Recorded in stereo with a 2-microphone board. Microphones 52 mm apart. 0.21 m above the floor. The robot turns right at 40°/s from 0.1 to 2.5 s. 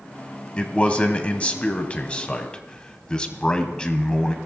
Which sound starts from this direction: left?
A man speaking, at 0.6 s.